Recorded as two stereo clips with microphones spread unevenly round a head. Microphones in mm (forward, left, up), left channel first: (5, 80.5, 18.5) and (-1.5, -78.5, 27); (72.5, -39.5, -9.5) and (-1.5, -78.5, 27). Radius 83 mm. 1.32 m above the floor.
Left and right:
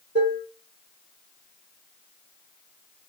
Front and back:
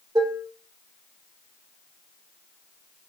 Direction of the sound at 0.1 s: 125° right.